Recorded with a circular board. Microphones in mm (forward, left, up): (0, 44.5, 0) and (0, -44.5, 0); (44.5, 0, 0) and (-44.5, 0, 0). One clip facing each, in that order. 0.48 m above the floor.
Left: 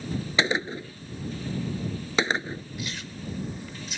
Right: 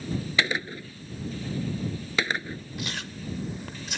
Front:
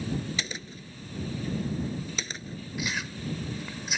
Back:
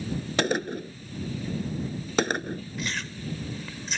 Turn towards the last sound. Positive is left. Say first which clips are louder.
# right 1 dB, even
turn(degrees=-80)